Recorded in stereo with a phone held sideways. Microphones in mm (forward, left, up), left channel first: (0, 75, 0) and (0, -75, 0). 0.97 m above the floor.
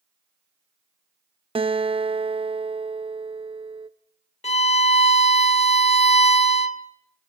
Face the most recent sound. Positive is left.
turn(degrees=45)  # may be behind; listen again after turning